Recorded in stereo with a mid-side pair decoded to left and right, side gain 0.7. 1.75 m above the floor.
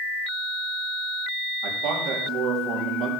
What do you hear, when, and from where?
1.6 s a man speaking: 65° right, 3.5 m